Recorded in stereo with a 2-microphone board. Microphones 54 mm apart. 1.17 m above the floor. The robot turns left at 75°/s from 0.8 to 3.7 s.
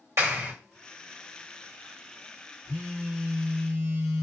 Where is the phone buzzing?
30° left, 0.7 m; by 4.2 s 50° right, 0.7 m.